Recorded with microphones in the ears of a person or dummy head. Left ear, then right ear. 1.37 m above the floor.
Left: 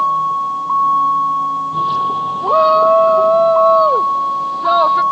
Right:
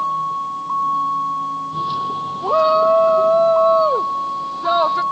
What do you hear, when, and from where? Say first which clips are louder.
0.0 s a vehicle: left 6 dB; 20° left (ahead or behind)
2.4 s a shout: left 3 dB; 5° left (ahead or behind)